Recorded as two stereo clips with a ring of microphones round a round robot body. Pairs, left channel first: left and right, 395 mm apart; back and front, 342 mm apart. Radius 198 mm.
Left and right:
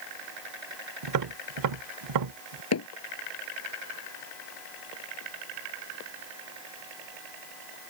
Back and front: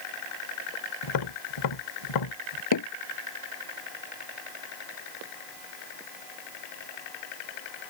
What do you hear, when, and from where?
1.0 s tapping: 140° right
2.7 s hammering: 145° left